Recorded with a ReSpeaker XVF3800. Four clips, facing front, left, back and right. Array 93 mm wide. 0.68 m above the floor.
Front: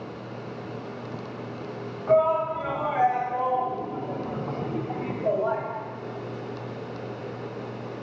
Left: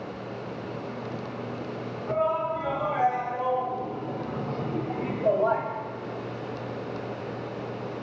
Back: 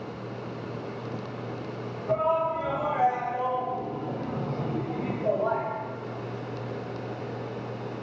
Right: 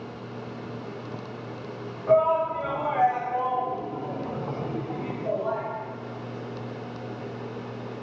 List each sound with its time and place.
2.1 s a shout: 60° right, 3 m; by 5.6 s 100° left, 1.1 m